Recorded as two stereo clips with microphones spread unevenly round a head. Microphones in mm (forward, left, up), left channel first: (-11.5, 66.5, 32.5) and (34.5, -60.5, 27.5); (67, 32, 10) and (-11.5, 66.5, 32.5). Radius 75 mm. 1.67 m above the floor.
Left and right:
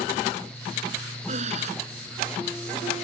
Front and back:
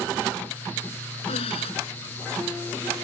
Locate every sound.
1.3 s breathing: 30° right